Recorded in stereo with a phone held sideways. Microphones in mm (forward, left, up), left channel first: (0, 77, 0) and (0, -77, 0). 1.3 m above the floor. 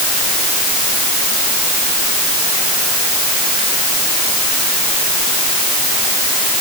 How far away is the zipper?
No zipper in this recording.